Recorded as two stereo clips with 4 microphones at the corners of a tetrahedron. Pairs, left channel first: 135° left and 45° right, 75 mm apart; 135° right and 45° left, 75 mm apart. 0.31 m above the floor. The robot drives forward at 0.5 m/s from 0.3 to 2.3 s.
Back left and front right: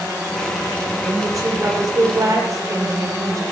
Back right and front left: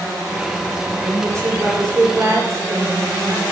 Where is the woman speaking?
Straight ahead, 7 m.